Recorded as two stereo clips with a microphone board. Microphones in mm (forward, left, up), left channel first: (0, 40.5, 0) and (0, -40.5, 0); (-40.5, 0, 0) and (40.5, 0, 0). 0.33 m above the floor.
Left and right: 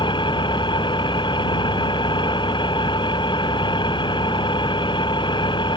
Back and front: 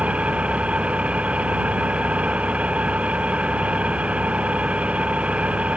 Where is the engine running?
75° left.